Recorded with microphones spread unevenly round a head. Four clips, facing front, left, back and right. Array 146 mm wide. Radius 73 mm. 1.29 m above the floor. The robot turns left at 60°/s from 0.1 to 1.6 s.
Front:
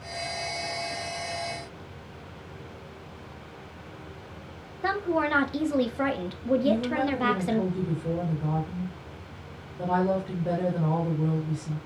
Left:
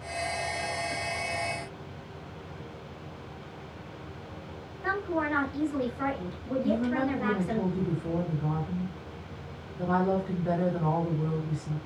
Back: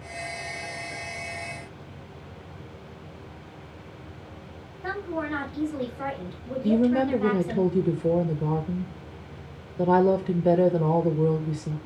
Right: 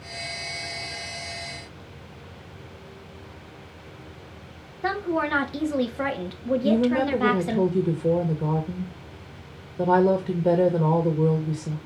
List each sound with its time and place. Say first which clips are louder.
4.8 s a woman speaking: right 4 dB, front 5 dB; 40° right, 2 m
6.6 s a woman speaking: right 6 dB, back 3 dB; 135° right, 1.6 m